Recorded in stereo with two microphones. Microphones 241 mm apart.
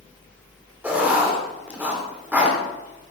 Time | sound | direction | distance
0.8 | writing | 5° right (ahead or behind) | 3.5 m